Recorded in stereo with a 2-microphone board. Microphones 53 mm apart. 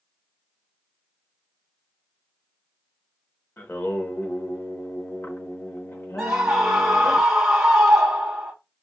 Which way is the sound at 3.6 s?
45° left (ahead or behind).